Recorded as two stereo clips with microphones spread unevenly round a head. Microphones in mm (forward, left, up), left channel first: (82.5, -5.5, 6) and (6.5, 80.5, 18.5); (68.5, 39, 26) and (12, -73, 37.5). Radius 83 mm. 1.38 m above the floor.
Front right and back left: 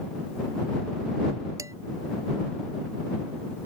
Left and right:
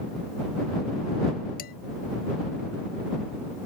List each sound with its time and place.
1.6 s dishes clattering: 70° left